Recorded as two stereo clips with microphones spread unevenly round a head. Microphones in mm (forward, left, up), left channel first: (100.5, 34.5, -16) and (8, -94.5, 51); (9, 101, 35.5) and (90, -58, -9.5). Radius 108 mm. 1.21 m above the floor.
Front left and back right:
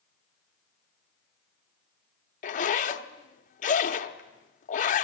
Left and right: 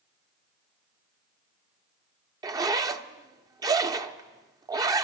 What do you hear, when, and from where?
2.4 s a zipper: 20° left, 0.7 m